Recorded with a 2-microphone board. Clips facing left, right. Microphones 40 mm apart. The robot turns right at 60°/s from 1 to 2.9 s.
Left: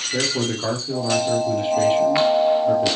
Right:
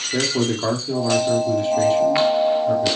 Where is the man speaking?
20° right, 3 m; by 3.0 s 90° left, 3 m.